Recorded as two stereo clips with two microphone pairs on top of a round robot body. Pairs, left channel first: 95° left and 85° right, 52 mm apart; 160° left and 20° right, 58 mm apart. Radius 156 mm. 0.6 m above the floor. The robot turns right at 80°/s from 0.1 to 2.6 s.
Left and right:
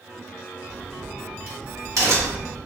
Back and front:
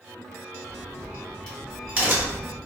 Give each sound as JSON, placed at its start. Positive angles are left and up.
{"t": 0.7, "sound": "a crack", "azimuth_deg": 180, "distance_m": 1.5}